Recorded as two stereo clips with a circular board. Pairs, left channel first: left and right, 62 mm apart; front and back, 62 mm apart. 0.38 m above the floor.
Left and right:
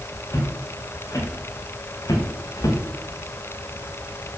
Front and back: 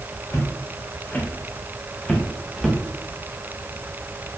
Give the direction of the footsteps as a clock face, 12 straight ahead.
10 o'clock.